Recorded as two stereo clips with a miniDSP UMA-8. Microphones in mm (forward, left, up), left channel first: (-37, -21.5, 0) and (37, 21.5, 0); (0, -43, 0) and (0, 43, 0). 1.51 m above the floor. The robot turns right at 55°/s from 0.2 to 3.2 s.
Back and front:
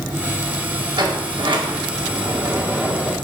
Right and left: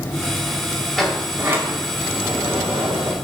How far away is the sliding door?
About 1.9 m.